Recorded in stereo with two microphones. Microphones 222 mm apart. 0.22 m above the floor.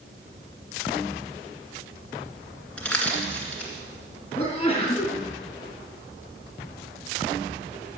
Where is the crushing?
5° left (ahead or behind), 2.5 m.